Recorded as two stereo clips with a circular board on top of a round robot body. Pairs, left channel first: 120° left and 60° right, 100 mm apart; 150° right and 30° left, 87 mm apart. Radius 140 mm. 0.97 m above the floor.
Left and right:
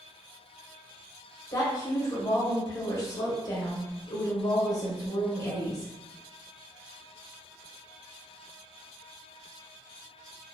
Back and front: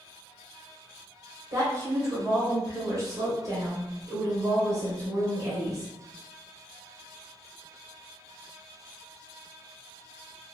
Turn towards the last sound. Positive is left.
turn(degrees=70)